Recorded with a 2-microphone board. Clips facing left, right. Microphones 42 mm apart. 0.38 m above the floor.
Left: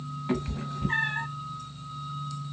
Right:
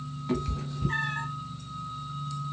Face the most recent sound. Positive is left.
turn(degrees=25)  # may be behind; listen again after turning